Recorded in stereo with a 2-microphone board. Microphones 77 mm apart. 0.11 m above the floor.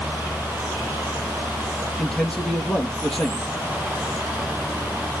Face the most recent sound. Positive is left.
turn(degrees=5)  # may be behind; listen again after turning